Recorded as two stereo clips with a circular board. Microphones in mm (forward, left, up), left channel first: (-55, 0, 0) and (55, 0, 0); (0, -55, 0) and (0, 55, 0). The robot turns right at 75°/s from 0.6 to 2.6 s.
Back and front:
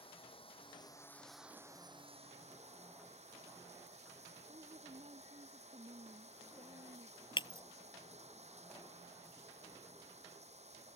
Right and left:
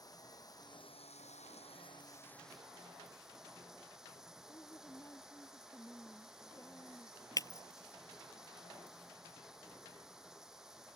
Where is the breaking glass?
140° right.